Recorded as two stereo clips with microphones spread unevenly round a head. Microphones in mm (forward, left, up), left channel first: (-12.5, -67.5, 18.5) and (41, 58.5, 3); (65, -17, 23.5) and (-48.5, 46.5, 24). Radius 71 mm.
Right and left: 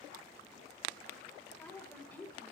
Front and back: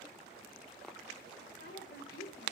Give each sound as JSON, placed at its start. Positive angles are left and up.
{"t": 1.5, "sound": "a woman speaking", "azimuth_deg": -35, "distance_m": 6.5}